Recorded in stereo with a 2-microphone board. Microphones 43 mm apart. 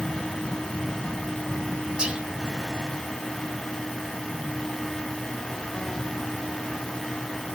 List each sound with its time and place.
2.0 s whispering: 25° right (ahead or behind), 1.1 m